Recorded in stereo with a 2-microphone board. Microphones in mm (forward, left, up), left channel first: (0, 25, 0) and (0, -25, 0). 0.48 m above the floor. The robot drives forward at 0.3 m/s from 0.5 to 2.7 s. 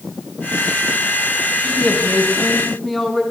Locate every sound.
1.6 s a man speaking: 15° left (ahead or behind), 3.5 m; by 3.2 s 10° left (ahead or behind), 3.5 m